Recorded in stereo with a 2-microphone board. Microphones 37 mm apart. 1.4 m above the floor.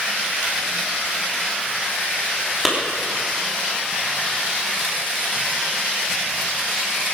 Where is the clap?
Centre (ahead or behind), 3.5 m.